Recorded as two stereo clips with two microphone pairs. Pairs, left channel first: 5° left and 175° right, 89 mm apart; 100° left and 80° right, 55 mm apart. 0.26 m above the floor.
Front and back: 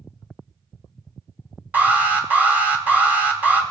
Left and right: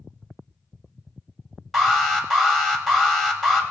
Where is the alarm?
170° right, 1.9 m.